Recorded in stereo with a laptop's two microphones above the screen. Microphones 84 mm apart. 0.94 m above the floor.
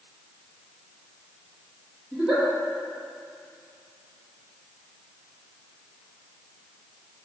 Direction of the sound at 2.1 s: 10° right (ahead or behind).